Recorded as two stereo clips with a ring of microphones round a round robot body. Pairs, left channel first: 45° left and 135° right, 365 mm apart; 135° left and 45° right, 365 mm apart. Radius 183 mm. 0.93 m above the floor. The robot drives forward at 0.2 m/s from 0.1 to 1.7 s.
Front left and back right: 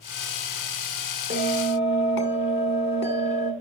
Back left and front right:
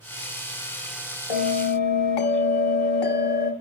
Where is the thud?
No thud in this recording.